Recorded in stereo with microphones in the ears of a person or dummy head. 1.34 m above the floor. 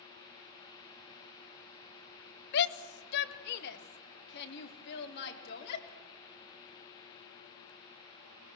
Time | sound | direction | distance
2.5 | a shout | 60° left (ahead or behind) | 1.3 m